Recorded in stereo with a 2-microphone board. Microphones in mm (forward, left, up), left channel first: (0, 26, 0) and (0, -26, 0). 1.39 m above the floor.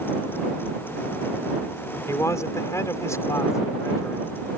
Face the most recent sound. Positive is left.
turn(degrees=75)  # may be behind; listen again after turning